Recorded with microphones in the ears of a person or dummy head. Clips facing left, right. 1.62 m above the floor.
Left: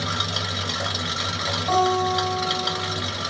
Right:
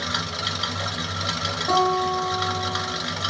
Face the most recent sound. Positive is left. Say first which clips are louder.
# left 1 dB
turn(degrees=-35)  # may be behind; listen again after turning